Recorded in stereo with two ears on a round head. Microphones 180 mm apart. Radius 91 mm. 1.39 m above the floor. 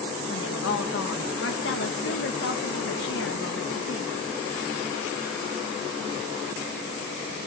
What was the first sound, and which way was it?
A woman speaking, 65° left (ahead or behind).